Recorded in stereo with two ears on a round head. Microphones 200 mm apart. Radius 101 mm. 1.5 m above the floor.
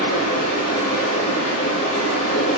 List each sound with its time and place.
0.0 s running water: 70° left (ahead or behind), 3.5 m